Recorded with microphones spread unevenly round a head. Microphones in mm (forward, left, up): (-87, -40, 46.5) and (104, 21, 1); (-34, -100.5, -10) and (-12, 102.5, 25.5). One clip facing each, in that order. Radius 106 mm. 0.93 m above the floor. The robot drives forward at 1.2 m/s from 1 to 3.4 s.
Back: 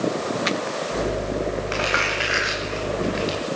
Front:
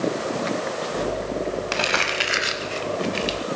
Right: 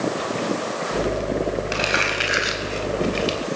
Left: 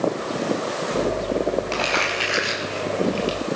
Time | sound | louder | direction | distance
1.7 | crumpling | back 1 dB, even | 20° right | 5 m